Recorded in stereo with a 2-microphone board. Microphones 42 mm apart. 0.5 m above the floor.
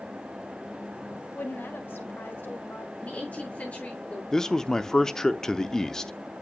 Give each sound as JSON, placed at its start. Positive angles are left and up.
{"t": 1.4, "sound": "a woman speaking", "side_deg": 60, "distance_m": 1.6}
{"t": 3.0, "sound": "a woman speaking", "side_deg": 35, "distance_m": 5.5}
{"t": 4.3, "sound": "a man speaking", "side_deg": 15, "distance_m": 0.7}